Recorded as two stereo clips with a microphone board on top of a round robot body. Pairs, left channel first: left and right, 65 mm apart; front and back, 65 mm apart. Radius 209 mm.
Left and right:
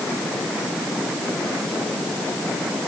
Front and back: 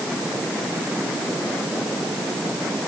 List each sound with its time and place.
Only background noise.